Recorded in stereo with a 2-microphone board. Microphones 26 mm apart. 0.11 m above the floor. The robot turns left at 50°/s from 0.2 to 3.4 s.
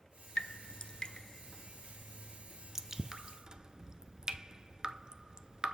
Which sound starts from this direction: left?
Dripping, at 0.4 s.